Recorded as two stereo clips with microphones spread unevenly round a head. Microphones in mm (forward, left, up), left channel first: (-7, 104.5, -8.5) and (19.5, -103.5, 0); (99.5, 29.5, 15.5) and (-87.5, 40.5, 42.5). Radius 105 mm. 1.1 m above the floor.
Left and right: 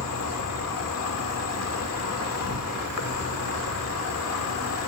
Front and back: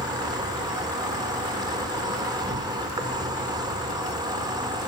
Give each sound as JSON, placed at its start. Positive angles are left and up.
{"t": 0.0, "sound": "an insect", "azimuth_deg": 105, "distance_m": 1.9}